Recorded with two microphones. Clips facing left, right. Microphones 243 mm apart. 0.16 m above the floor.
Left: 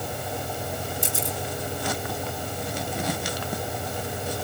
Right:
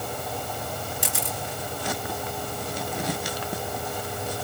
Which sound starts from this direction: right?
A camera shutter, at 1.0 s.